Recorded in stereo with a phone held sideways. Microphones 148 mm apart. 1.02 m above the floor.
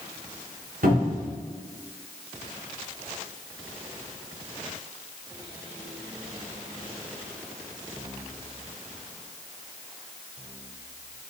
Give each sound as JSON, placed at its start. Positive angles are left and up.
{"t": 0.8, "sound": "a cupboard door", "side_deg": -85, "distance_m": 3.0}